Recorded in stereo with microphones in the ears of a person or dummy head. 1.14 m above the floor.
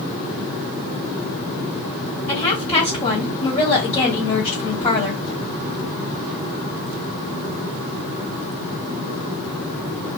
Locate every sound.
2.3 s a woman speaking: 30° left (ahead or behind), 1.7 m